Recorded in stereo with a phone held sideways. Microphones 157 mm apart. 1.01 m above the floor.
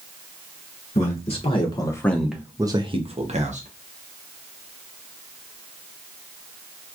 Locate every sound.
0.9 s a man speaking: 45° left (ahead or behind), 0.9 m; by 3.7 s 50° right (ahead or behind), 0.9 m